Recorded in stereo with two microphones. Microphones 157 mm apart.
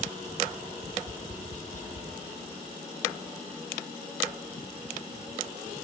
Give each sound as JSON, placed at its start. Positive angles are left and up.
{"t": 0.8, "sound": "tapping", "side_deg": 55, "distance_m": 3.5}